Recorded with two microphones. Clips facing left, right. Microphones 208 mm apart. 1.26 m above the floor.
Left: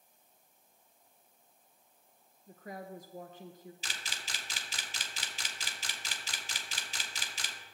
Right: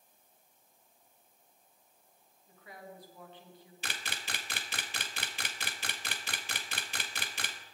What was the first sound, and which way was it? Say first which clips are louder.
A woman speaking: left 6 dB; 45° left (ahead or behind).